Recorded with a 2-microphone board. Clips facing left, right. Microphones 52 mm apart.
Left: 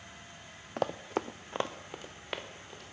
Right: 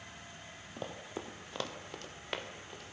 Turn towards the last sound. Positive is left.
turn(degrees=0)  # may be behind; listen again after turning